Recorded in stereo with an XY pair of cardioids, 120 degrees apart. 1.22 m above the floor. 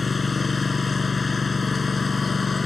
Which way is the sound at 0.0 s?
25° left.